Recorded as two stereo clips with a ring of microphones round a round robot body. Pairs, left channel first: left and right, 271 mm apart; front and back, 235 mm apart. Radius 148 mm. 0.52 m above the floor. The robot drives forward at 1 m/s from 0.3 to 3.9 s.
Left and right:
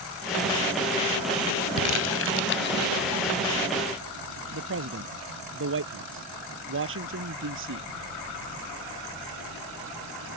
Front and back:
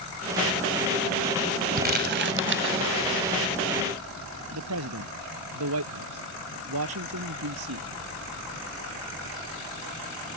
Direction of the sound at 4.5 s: 140° right.